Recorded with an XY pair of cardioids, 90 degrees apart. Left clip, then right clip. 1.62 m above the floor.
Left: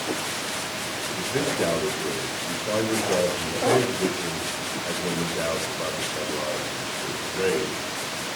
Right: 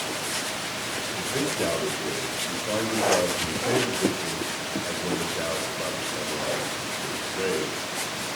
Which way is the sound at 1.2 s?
25° left.